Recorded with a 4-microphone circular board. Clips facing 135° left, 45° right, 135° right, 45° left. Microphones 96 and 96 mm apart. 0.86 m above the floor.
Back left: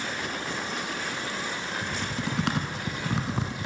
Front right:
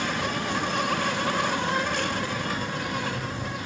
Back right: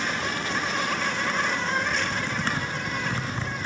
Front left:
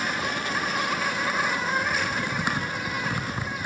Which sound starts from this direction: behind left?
Typing on a keyboard, at 1.8 s.